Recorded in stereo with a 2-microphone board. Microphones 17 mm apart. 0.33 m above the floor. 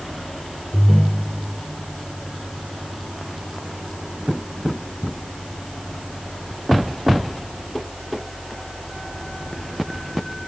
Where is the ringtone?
25° left (ahead or behind), 2.5 m.